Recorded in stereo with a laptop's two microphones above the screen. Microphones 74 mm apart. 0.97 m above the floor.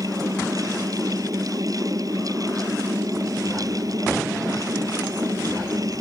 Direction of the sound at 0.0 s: 55° right (ahead or behind).